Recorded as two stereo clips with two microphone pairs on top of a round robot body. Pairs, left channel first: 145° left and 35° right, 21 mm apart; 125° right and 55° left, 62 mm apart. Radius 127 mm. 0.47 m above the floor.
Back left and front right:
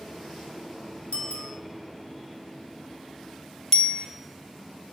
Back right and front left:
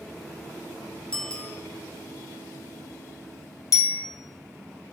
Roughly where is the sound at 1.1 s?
Behind left.